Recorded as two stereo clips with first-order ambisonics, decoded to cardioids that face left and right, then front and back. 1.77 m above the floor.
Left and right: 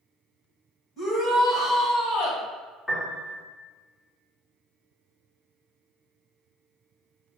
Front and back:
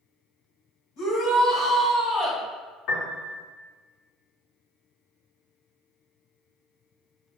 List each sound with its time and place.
1.0 s a shout: 35° left, 1.8 m; by 2.4 s 60° left, 1.5 m
2.9 s a piano: 15° left, 0.9 m